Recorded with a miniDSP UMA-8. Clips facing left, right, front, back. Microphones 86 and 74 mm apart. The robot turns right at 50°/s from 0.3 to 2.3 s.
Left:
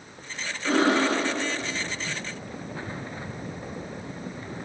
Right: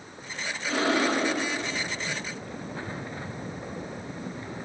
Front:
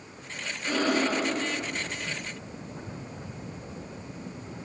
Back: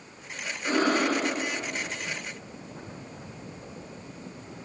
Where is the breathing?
120° left, 1.0 m; by 1.3 s 155° left, 1.0 m.